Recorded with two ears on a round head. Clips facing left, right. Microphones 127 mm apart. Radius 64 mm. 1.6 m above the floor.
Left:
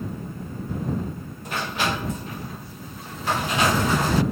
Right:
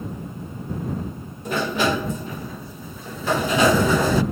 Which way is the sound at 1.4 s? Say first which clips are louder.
Right 5 dB; 85° right.